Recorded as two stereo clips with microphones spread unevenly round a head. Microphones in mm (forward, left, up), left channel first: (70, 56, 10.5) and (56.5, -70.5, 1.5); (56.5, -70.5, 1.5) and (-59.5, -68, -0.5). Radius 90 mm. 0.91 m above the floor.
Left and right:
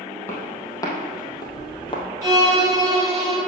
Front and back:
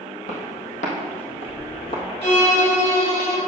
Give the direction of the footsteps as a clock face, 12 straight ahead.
11 o'clock.